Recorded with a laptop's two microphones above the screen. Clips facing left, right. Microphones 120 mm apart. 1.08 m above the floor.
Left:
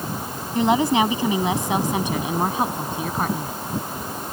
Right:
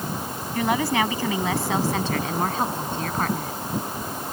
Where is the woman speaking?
20° left (ahead or behind); by 3.5 s 10° left (ahead or behind).